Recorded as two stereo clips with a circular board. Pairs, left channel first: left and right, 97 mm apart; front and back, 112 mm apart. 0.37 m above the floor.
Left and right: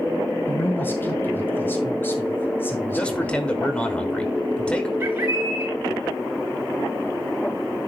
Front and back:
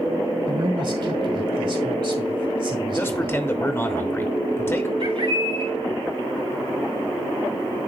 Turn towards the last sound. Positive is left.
turn(degrees=-155)